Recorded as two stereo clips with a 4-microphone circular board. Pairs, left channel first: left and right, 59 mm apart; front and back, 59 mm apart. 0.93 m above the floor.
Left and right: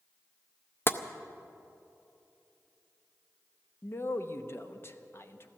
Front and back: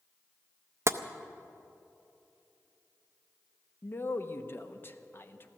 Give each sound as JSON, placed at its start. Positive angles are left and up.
{"t": 0.9, "sound": "tapping", "azimuth_deg": 140, "distance_m": 0.5}
{"t": 3.8, "sound": "a man speaking", "azimuth_deg": 45, "distance_m": 0.9}